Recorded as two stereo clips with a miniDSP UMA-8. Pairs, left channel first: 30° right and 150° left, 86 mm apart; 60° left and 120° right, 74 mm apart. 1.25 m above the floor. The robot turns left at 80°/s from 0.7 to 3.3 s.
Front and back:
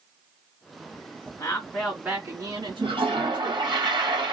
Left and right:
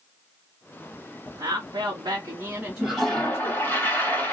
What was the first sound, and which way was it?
A woman speaking, 90° right.